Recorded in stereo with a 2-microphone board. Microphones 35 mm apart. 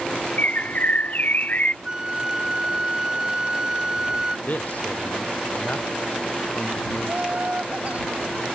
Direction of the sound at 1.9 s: 20° right (ahead or behind).